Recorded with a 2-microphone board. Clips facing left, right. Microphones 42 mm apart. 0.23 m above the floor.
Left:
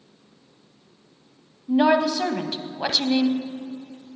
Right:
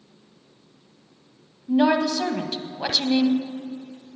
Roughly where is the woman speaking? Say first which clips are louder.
Left 1 dB; centre.